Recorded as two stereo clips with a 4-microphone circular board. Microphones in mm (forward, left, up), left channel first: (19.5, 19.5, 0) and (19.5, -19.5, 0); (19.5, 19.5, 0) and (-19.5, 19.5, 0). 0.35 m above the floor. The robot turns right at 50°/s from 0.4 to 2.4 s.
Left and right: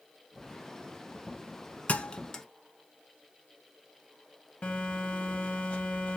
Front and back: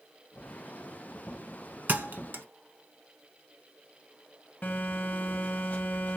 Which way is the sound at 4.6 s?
40° left.